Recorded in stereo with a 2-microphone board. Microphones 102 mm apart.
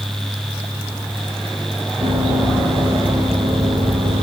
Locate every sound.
2.0 s running footsteps: 55° right (ahead or behind), 4.5 m; by 4.2 s 65° right (ahead or behind), 5.5 m